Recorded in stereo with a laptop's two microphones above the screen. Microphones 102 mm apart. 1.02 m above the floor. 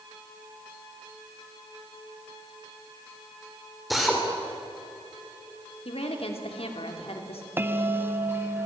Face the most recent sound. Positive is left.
turn(degrees=-20)  # may be behind; listen again after turning